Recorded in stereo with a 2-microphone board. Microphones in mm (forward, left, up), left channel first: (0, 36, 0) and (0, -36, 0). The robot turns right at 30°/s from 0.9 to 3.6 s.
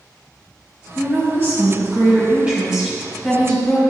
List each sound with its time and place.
0.9 s a woman speaking: 70° right, 1.8 m; by 3.8 s 10° left, 1.8 m